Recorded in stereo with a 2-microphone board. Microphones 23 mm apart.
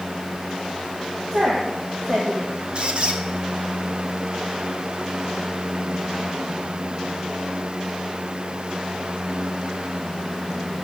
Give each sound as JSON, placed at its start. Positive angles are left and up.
{"t": 1.3, "sound": "a woman speaking", "side_deg": -70, "distance_m": 1.9}
{"t": 2.8, "sound": "a squeak", "side_deg": -45, "distance_m": 1.2}